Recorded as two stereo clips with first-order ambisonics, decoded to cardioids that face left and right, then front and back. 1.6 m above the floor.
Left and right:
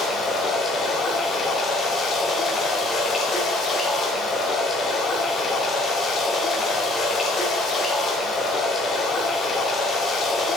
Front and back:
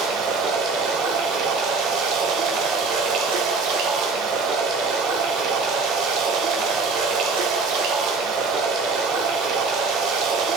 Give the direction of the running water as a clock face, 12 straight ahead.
7 o'clock.